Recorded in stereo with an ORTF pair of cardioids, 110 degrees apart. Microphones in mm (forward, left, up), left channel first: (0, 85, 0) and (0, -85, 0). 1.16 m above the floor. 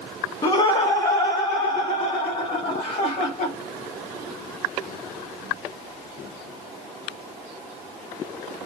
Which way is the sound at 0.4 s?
40° left.